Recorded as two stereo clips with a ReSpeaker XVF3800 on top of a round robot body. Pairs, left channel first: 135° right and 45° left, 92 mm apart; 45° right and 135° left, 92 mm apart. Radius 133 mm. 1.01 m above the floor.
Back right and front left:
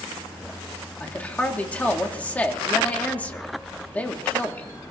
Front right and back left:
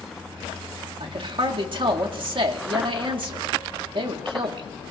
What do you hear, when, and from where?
1.0 s a man speaking: 150° left, 1.9 m